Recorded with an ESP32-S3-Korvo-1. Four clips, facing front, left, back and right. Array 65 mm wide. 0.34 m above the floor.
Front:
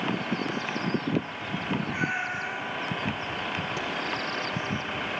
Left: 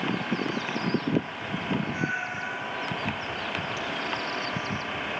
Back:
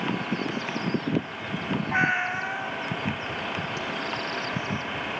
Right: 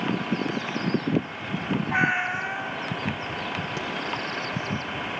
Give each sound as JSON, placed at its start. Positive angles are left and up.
{"t": 1.9, "sound": "a cat meowing", "azimuth_deg": -130, "distance_m": 1.0}
{"t": 3.8, "sound": "a crack", "azimuth_deg": -80, "distance_m": 2.5}